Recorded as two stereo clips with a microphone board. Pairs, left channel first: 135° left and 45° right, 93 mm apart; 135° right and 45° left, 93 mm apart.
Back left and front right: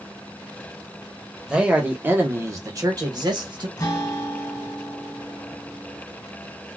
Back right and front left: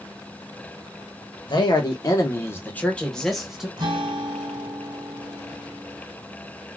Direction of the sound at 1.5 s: 125° right.